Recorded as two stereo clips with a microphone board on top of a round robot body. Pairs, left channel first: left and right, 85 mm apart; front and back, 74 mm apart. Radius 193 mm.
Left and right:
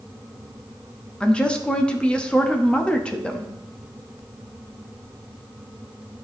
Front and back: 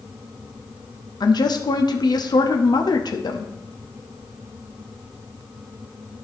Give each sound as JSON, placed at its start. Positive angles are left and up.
{"t": 1.2, "sound": "a woman speaking", "azimuth_deg": 15, "distance_m": 1.2}